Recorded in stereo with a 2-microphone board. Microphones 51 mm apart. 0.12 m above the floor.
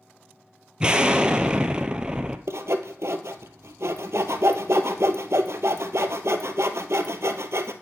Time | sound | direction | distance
0.8 | an explosion | 20° right (ahead or behind) | 0.5 m
2.5 | sawing | 70° right (ahead or behind) | 0.6 m